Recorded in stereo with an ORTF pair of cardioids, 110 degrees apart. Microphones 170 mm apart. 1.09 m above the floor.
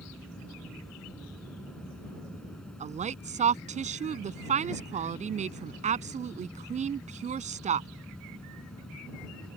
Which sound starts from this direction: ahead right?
A woman speaking, at 2.8 s.